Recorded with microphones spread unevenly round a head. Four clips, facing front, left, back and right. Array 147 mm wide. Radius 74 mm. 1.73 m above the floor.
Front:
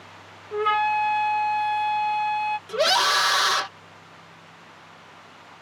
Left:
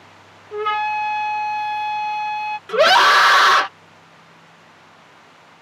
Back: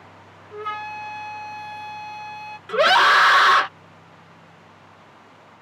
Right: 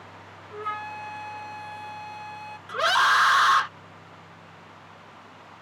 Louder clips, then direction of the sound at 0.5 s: Left 12 dB, front 9 dB; 45° left.